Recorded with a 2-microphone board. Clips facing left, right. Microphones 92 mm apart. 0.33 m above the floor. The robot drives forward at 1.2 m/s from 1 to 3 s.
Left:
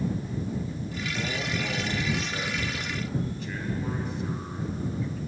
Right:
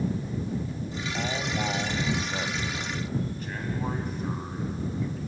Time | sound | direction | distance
1.1 | a man speaking | 50° right (ahead or behind) | 3 m